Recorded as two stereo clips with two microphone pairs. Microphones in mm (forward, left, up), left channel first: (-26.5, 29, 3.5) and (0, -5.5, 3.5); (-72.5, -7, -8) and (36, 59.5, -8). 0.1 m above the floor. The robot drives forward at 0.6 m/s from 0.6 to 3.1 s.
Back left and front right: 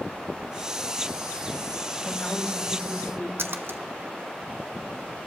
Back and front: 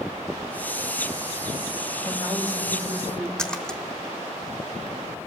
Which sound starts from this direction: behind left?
A woman speaking, at 2.0 s.